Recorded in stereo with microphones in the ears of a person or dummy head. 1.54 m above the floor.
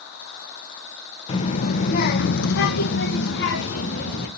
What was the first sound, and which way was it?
A child speaking, 40° left (ahead or behind).